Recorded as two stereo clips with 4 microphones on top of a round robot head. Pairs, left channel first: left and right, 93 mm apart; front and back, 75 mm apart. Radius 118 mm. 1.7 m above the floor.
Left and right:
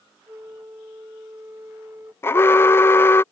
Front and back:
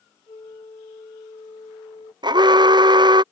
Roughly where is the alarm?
Behind.